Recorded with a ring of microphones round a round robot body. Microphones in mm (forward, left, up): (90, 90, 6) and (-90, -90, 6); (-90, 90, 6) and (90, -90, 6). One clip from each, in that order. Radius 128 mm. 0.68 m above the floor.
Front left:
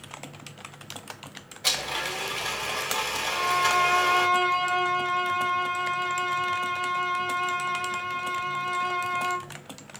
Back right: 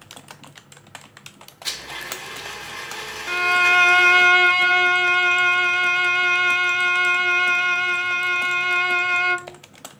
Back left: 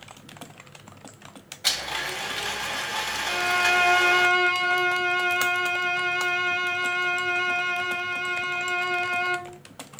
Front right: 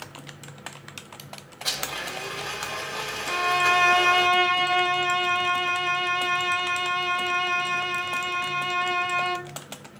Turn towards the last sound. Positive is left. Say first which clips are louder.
# back right 8 dB, front right 1 dB
turn(degrees=-125)